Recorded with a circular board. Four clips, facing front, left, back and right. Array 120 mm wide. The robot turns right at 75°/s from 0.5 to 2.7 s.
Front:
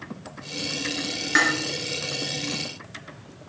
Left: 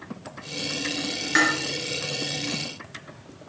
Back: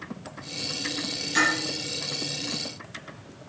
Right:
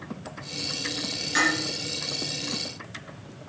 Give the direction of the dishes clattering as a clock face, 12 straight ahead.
11 o'clock.